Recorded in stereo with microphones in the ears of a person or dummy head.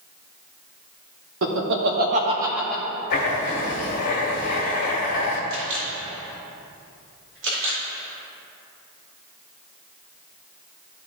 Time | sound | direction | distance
1.4 | laughter | 70° right (ahead or behind) | 1.4 m
3.1 | writing | 55° left (ahead or behind) | 1.7 m
5.5 | a camera shutter | 75° right (ahead or behind) | 2.5 m